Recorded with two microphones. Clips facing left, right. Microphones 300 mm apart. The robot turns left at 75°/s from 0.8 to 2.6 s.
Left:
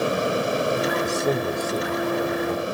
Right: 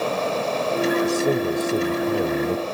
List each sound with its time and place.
1.0 s a man speaking: 5° left, 1.1 m; by 2.6 s 110° right, 1.1 m